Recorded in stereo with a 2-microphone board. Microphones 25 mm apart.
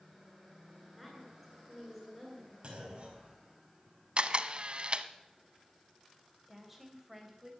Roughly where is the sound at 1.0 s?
Centre.